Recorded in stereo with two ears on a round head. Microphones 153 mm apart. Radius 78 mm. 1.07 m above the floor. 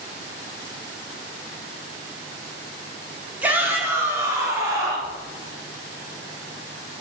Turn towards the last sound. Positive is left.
turn(degrees=-25)  # may be behind; listen again after turning